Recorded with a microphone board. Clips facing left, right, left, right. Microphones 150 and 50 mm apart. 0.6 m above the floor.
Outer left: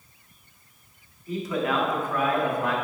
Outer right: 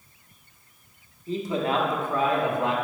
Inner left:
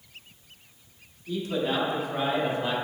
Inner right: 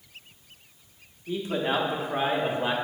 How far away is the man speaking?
About 1.1 m.